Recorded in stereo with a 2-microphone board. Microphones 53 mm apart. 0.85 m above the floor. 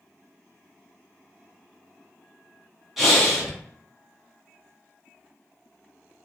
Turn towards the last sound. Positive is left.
turn(degrees=-5)  # may be behind; listen again after turning